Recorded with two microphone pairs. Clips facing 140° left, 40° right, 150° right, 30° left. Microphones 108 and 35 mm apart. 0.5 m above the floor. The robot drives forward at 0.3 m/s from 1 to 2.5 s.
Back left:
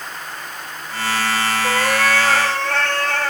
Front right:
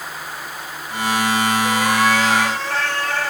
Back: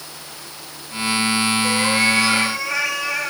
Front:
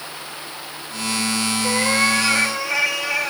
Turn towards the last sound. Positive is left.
turn(degrees=120)